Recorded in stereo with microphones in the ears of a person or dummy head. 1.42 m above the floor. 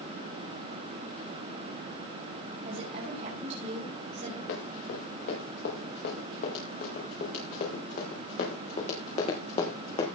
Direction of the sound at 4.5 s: 60° left (ahead or behind).